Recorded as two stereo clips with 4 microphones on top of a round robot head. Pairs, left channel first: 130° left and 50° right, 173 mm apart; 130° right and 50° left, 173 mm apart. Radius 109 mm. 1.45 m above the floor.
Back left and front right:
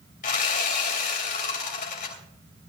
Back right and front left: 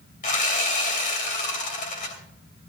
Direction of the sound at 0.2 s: Straight behind.